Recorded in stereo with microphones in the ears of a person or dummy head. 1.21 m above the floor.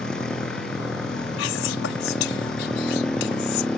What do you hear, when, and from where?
0.0 s a motorcycle: 5° left (ahead or behind)
1.4 s whispering: 75° left (ahead or behind)